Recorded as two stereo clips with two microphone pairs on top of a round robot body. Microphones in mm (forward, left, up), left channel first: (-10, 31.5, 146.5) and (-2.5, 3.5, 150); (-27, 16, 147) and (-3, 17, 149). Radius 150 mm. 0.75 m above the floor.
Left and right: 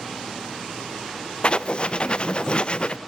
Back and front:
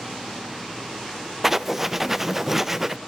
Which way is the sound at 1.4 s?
85° left.